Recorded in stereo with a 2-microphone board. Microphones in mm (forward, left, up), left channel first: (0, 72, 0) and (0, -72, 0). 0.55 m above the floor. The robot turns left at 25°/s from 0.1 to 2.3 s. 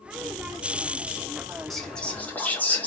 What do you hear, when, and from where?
1.7 s whispering: centre (ahead or behind), 1.2 m; by 2.9 s 10° left (ahead or behind), 1.2 m